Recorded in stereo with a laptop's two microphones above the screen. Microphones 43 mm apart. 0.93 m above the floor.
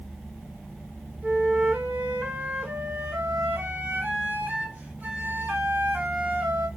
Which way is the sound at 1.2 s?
40° right (ahead or behind).